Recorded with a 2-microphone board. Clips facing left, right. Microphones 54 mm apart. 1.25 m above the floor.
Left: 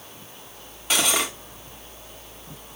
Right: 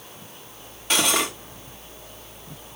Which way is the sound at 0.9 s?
Centre (ahead or behind).